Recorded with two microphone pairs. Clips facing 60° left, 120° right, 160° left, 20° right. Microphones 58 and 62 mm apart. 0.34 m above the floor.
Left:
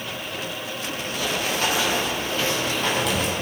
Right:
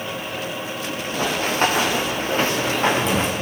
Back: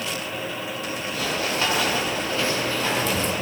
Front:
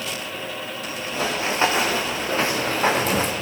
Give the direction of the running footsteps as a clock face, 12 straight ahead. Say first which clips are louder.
Right 5 dB, front 3 dB; 3 o'clock.